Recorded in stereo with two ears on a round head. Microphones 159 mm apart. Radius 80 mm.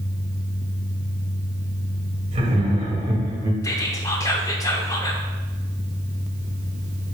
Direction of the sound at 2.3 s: 40° right (ahead or behind).